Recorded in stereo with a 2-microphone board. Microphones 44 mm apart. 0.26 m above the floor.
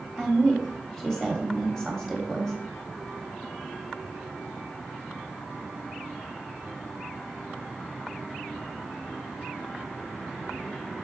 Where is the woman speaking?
10° left (ahead or behind), 1.0 m.